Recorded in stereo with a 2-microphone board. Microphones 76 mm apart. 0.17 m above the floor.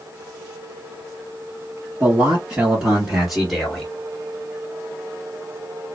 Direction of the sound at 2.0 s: 30° right (ahead or behind).